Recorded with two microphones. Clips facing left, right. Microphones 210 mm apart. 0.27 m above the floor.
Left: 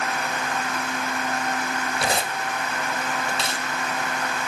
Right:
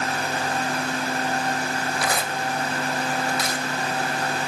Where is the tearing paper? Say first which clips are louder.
Even; 25° left (ahead or behind), 0.7 m.